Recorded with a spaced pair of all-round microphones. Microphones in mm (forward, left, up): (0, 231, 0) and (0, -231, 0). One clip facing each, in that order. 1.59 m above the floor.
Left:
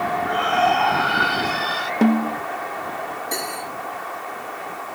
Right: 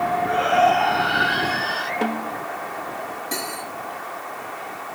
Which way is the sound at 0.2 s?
20° left (ahead or behind).